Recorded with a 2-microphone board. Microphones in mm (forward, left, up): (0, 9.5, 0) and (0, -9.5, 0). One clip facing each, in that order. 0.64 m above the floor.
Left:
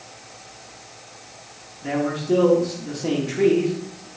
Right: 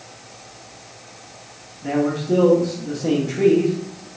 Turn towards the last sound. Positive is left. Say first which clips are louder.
# right 3 dB
turn(degrees=20)  # may be behind; listen again after turning